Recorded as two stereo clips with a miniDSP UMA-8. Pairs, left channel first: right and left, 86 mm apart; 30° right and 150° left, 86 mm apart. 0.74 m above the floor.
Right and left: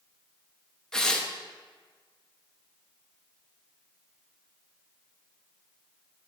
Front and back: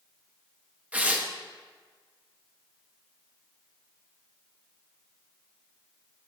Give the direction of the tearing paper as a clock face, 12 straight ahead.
5 o'clock.